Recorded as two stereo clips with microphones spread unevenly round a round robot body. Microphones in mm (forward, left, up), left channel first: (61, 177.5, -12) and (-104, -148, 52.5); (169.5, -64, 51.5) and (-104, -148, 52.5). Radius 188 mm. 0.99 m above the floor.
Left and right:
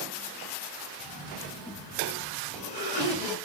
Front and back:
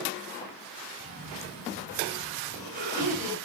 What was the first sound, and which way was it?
A cough, 45° left.